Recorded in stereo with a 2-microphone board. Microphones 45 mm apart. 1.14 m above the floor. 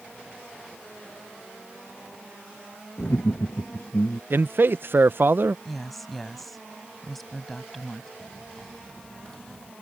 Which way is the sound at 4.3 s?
55° right (ahead or behind).